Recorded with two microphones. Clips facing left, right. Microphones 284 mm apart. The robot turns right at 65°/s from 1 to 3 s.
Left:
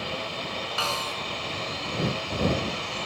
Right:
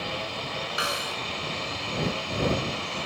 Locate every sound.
0.8 s a snare drum: 20° right (ahead or behind); by 1.2 s 5° right (ahead or behind)